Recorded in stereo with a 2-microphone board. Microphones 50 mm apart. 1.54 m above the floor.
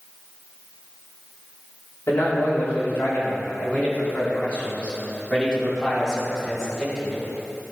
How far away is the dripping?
I don't hear dripping.